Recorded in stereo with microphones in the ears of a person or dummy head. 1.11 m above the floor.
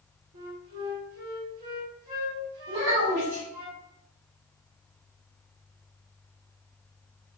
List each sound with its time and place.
0.3 s a flute: 60° right (ahead or behind), 1.3 m
2.7 s a child speaking: 70° right (ahead or behind), 1.5 m